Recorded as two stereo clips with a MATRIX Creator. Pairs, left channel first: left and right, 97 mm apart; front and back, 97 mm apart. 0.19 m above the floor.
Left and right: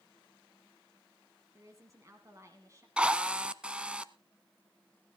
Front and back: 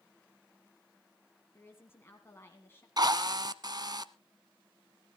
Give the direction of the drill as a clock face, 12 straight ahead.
5 o'clock.